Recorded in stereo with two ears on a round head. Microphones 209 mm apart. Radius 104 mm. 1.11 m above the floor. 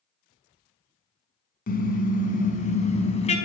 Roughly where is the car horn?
Left.